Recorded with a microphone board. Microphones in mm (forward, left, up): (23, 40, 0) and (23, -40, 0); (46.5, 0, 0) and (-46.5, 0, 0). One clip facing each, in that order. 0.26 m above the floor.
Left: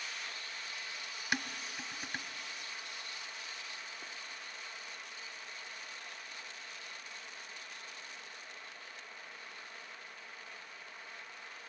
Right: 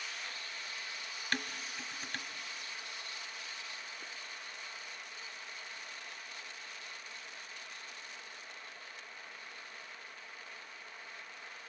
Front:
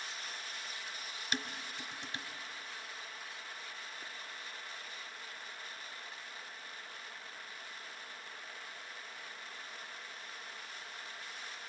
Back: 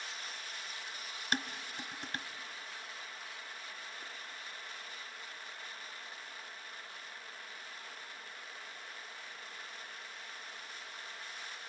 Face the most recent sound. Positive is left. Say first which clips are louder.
# left 1 dB, back 3 dB
turn(degrees=165)